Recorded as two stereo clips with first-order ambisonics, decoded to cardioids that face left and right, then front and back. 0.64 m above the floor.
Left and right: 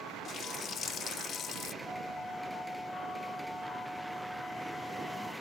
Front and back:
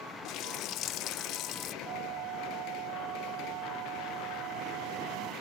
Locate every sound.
0.2 s a running tap: 35° left
1.8 s a flute: straight behind